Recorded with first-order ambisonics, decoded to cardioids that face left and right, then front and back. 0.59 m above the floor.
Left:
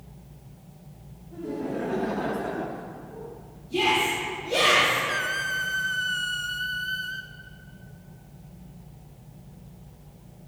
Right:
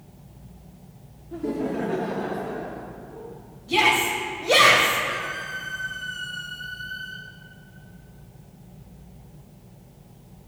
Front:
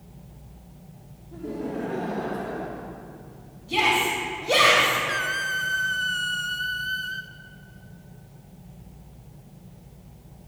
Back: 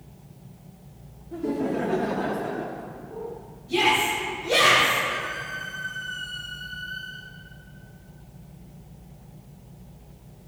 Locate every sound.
1.3 s laughter: 130° right, 1.1 m; by 2.9 s 105° left, 1.1 m
3.7 s a shout: 70° right, 2.5 m
5.1 s a squeak: 40° left, 0.6 m